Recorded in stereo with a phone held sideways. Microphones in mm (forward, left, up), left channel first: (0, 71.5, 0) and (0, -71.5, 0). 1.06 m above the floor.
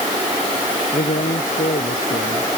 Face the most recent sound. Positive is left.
turn(degrees=75)  # may be behind; listen again after turning